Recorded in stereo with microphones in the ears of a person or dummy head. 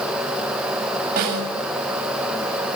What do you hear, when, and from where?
1.2 s a snare drum: 50° right (ahead or behind), 8 m